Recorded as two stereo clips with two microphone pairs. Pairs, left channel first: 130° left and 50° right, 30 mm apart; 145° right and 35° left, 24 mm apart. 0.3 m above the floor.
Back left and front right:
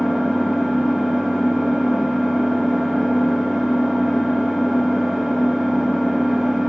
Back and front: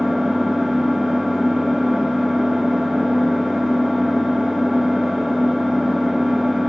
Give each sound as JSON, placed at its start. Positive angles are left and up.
{"t": 0.0, "sound": "an engine running", "azimuth_deg": 15, "distance_m": 1.7}